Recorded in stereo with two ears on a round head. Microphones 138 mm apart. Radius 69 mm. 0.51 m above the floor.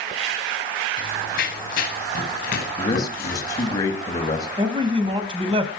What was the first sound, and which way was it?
Running footsteps, 60° left (ahead or behind).